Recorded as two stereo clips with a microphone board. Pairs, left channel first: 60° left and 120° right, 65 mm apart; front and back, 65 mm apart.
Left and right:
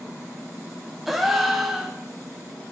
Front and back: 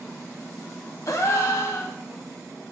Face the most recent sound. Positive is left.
turn(degrees=-35)